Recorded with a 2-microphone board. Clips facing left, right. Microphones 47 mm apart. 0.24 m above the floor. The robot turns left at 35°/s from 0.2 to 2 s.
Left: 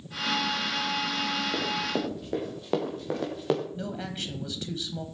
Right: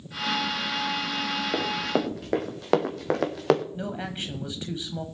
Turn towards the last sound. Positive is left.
turn(degrees=-25)  # may be behind; listen again after turning